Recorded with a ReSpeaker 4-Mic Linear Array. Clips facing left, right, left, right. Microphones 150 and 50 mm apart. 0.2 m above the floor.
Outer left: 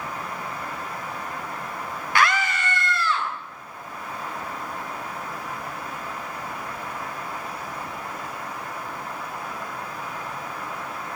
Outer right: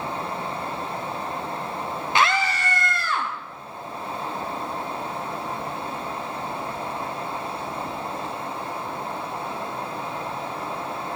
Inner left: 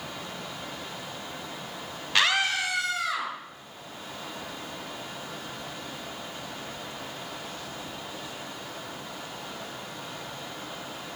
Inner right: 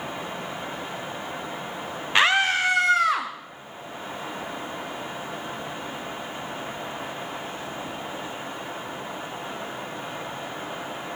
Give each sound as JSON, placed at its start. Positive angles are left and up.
{"t": 2.1, "sound": "a scream", "side_deg": -20, "distance_m": 1.0}